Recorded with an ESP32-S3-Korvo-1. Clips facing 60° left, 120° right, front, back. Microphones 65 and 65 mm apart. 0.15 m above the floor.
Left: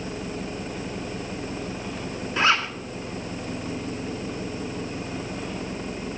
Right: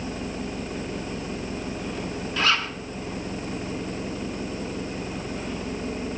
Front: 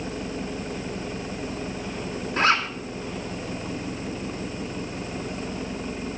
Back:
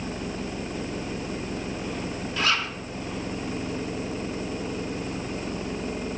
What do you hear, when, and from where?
2.4 s a zipper: 10° left, 2 m